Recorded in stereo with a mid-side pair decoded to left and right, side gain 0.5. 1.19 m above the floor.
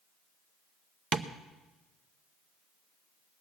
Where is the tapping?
55° right, 0.9 m.